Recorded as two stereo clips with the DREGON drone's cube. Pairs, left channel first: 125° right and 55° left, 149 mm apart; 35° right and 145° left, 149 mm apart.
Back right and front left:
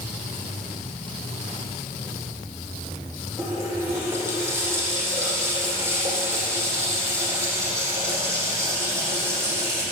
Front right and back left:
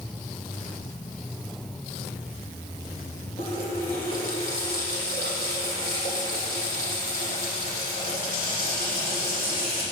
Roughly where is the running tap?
Ahead.